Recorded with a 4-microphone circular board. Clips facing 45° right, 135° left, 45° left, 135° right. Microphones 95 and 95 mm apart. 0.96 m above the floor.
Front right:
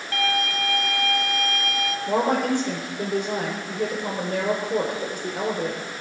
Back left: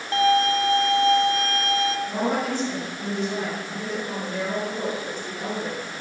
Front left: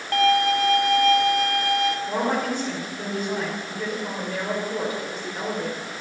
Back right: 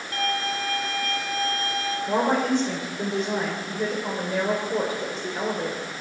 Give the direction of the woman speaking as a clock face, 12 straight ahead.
2 o'clock.